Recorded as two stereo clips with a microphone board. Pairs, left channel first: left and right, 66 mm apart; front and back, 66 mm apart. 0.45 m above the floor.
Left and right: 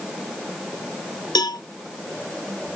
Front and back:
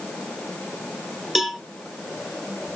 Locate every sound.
1.4 s a cowbell: 95° left, 0.6 m